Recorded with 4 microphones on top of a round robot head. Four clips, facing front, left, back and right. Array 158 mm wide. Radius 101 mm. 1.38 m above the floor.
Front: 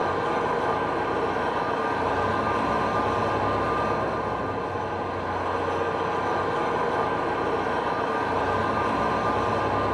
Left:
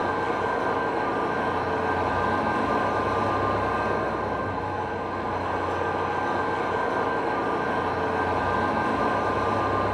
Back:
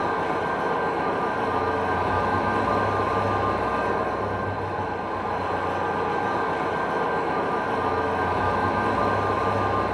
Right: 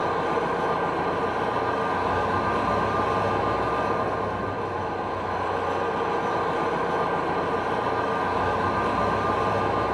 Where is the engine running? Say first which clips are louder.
Right 1 dB, even; 160° right, 2 m.